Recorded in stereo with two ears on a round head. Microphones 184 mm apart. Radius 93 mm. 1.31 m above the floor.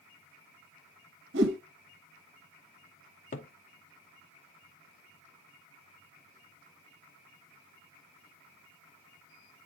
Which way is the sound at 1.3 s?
60° right (ahead or behind).